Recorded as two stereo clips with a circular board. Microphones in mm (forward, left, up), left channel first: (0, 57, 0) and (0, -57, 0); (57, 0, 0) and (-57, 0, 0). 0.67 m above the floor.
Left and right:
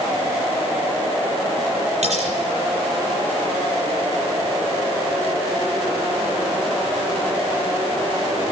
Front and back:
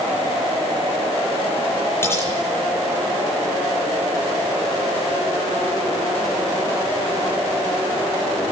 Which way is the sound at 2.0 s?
70° right.